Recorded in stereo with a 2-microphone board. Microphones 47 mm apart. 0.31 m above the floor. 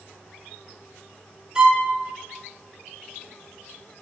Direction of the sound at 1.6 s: 15° right (ahead or behind).